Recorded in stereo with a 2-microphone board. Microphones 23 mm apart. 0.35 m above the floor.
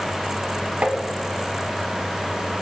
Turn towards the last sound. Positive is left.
turn(degrees=-70)  # may be behind; listen again after turning